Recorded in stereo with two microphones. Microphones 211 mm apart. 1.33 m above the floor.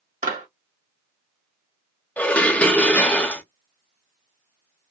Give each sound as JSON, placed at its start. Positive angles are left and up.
{"t": 0.2, "sound": "a clap", "side_deg": -45, "distance_m": 1.5}
{"t": 2.2, "sound": "dishes clattering", "side_deg": 5, "distance_m": 0.7}